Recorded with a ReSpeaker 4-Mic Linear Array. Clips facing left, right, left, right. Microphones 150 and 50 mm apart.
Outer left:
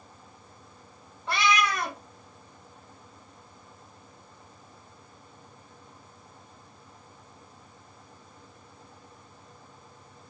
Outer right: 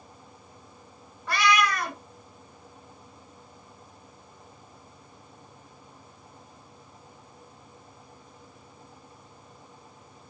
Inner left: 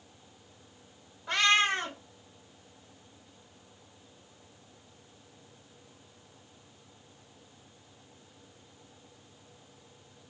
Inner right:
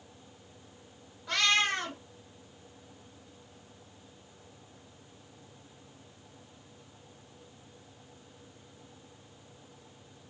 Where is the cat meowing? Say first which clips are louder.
Outer right 2 dB, inner left 2 dB; 25° left (ahead or behind), 0.8 m.